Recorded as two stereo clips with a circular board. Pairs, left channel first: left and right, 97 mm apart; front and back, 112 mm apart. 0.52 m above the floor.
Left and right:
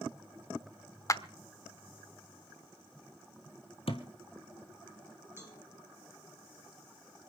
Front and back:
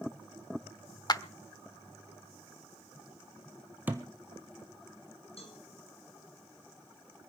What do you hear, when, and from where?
1.1 s a clap: 40° left, 0.9 m
3.9 s a thud: 105° left, 2.0 m
5.4 s a cowbell: 25° right, 5.5 m